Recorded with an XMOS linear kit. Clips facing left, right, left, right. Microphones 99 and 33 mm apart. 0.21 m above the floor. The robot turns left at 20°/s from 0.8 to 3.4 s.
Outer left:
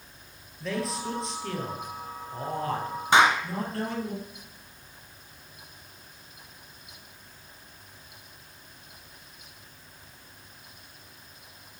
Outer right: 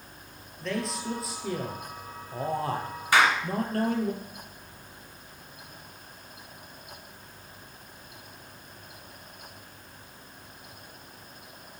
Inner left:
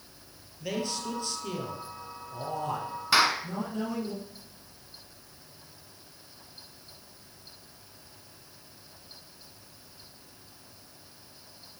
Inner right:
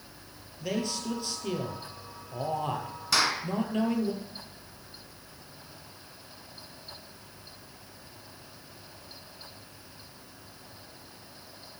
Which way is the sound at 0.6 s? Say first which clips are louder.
Outer left 1 dB, inner right 1 dB; straight ahead.